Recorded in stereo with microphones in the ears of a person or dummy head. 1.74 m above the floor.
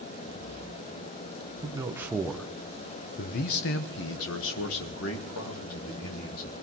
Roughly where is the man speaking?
Right.